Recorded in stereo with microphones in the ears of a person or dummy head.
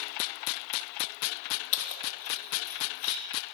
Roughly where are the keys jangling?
Left.